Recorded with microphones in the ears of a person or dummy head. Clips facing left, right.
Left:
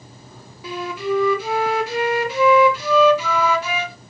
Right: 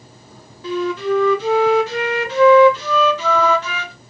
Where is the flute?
5° left (ahead or behind), 0.6 m.